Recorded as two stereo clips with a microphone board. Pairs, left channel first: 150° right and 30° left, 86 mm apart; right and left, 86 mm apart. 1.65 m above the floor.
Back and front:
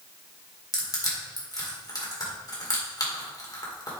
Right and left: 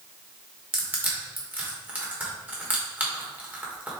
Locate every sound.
0.7 s crushing: 165° left, 2 m